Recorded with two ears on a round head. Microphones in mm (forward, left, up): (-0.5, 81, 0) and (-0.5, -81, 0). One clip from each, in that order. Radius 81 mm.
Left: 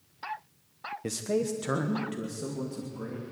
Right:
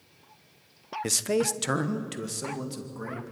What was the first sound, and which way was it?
A man speaking, 45° right (ahead or behind).